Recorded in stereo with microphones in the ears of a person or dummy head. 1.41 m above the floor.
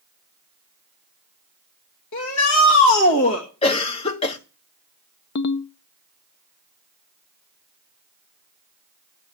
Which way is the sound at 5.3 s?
55° left (ahead or behind).